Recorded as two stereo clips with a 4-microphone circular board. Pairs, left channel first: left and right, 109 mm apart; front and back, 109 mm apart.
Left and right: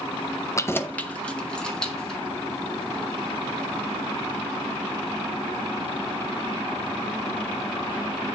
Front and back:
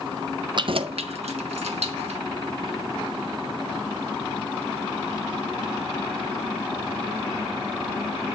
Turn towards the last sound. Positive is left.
turn(degrees=175)